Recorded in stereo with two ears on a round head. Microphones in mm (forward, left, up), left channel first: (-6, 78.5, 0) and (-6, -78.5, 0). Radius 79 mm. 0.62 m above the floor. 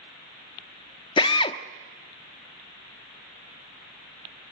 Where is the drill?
30° left (ahead or behind), 0.7 m.